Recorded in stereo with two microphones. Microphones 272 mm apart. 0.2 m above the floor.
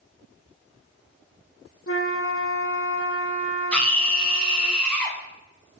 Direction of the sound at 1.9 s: 50° left (ahead or behind).